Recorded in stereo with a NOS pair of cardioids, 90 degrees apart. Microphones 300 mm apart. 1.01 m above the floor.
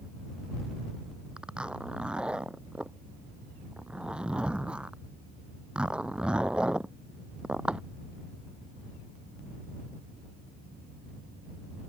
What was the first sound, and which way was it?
A zipper, 5° right.